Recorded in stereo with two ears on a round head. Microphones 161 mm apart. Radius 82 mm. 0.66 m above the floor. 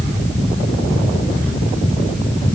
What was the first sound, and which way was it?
Only background noise.